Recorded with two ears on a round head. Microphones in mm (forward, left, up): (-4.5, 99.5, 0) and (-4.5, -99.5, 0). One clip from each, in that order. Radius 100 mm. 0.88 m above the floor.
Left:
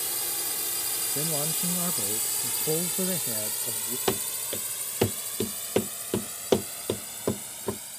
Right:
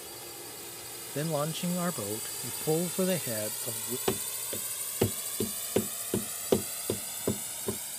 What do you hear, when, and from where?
0.0 s a drone: 55° left (ahead or behind); by 8.0 s 10° right (ahead or behind)
1.1 s a man speaking: 30° right (ahead or behind)
4.1 s running footsteps: 20° left (ahead or behind); by 7.8 s 25° left (ahead or behind)